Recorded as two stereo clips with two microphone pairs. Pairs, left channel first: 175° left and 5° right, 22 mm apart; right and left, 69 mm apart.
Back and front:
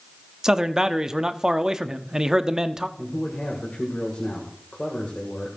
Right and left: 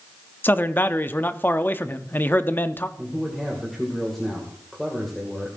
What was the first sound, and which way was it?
A man speaking, 45° right.